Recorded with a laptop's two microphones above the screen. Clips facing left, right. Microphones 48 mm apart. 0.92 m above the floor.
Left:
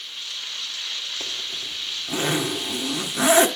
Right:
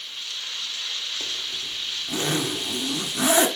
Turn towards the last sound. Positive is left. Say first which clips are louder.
# even
turn(degrees=20)  # may be behind; listen again after turning